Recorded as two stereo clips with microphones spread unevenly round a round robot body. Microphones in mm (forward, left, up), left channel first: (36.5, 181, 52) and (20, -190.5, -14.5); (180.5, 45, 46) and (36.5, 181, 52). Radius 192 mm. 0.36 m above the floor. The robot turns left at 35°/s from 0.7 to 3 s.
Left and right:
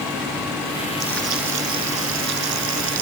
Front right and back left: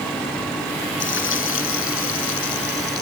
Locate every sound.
1.0 s frying: 25° right; by 3.0 s 95° right